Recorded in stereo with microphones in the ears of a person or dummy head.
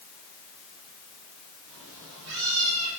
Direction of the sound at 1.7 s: 75° right (ahead or behind).